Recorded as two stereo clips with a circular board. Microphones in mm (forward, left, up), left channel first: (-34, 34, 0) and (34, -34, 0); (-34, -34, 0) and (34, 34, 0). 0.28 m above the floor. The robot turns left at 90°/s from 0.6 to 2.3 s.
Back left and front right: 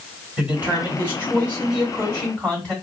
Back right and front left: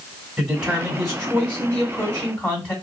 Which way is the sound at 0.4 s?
10° right.